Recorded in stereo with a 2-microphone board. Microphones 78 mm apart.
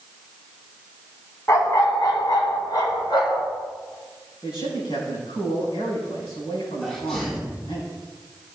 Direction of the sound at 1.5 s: 40° left (ahead or behind).